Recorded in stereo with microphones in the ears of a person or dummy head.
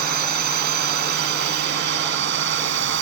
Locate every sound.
0.0 s a drone: 50° right (ahead or behind); by 3.0 s 65° right (ahead or behind)